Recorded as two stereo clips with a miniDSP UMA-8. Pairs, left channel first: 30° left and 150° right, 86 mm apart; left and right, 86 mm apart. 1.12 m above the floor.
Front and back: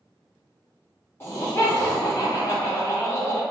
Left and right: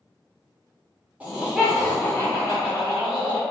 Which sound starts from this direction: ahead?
Laughter, at 1.2 s.